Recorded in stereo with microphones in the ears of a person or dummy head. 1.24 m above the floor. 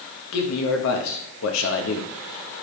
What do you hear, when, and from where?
0.3 s a man speaking: 80° left, 1.2 m